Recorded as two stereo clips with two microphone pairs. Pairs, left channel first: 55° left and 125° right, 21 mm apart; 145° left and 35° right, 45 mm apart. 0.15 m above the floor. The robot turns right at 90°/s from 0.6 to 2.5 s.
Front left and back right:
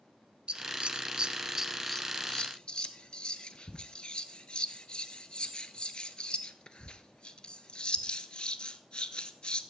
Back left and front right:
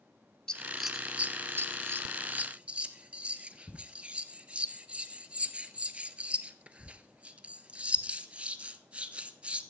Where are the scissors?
150° right, 0.7 m; by 9.6 s 20° left, 0.7 m.